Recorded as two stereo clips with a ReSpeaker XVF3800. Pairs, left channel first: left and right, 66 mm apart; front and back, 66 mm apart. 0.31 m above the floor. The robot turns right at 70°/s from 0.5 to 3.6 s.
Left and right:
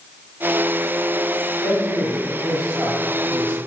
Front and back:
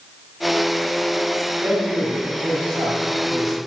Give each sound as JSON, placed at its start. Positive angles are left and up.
{"t": 1.6, "sound": "a man speaking", "azimuth_deg": 115, "distance_m": 3.5}